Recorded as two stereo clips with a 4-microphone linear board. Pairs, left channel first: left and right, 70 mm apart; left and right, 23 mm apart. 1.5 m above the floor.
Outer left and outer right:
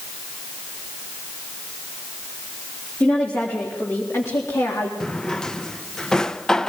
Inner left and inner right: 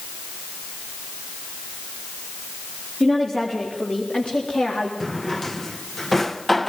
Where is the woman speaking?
25° left (ahead or behind), 4 m; by 4.9 s 50° left (ahead or behind), 4 m.